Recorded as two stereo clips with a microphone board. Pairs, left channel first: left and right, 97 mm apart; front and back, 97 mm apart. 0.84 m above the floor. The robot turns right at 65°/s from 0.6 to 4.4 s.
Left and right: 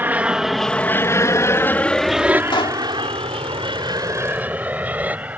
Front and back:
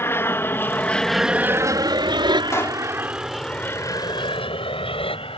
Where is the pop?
55° left; by 2.8 s 80° left.